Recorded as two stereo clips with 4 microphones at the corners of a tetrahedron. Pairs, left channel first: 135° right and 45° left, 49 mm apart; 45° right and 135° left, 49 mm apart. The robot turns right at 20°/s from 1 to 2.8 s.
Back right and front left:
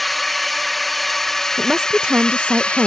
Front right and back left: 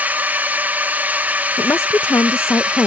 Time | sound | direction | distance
0.0 | a drone | 140° left | ?
1.6 | a woman speaking | 30° right | ?